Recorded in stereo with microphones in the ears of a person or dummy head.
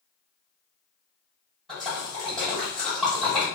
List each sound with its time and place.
1.7 s a splash: 5° left (ahead or behind), 1.5 m